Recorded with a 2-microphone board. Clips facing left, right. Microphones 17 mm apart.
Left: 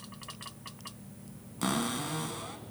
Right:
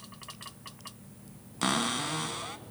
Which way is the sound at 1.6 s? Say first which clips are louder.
Right 3 dB; 25° right (ahead or behind).